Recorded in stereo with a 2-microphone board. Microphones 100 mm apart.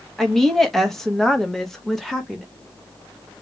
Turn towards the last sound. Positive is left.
turn(degrees=0)  # may be behind; listen again after turning